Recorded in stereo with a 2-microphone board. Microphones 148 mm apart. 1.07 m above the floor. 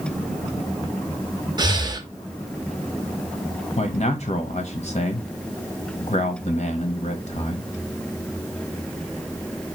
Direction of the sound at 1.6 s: 30° right (ahead or behind).